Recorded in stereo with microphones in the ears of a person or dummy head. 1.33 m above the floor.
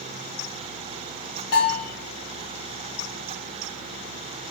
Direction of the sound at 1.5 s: 50° left (ahead or behind).